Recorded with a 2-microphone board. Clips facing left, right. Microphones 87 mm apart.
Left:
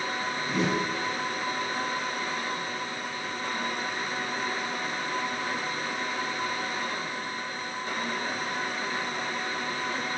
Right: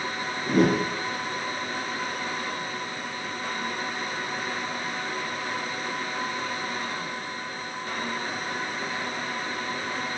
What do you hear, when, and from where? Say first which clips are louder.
0.5 s a whoosh: right 7 dB; 50° right (ahead or behind), 0.5 m